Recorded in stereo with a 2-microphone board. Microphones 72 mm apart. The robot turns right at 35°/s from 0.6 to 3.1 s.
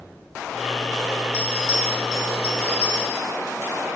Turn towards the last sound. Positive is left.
turn(degrees=-140)